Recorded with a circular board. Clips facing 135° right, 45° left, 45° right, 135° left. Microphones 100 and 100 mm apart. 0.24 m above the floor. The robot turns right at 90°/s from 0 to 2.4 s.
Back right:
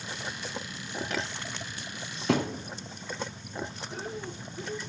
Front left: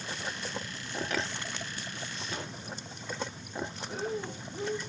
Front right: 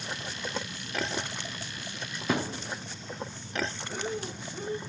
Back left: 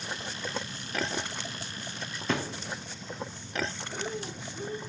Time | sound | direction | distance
2.3 | a thud | 130° right | 2.0 m
3.9 | breathing | 20° left | 7 m